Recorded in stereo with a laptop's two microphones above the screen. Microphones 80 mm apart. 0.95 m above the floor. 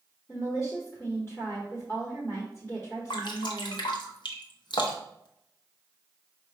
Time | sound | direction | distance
0.3 | a woman speaking | 30° left (ahead or behind) | 1.0 m
3.1 | dripping | 60° left (ahead or behind) | 0.7 m